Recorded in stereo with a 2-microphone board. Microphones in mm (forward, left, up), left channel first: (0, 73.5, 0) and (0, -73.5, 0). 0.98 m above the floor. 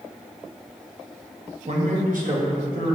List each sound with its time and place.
1.7 s a man speaking: 50° right (ahead or behind), 0.7 m; by 3.0 s 75° right (ahead or behind), 1.7 m